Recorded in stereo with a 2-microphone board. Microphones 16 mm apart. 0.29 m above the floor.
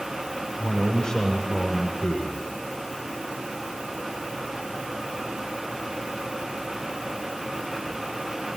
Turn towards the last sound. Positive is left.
turn(degrees=50)  # may be behind; listen again after turning